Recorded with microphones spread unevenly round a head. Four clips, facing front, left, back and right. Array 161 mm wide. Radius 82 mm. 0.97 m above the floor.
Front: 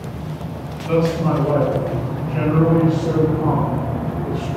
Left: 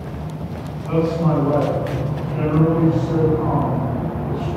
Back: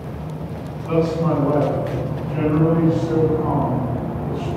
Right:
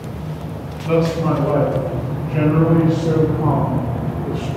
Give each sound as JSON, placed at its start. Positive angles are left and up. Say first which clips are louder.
{"t": 0.8, "sound": "a man speaking", "louder": "right 2 dB, front 1 dB", "azimuth_deg": -80, "distance_m": 7.0}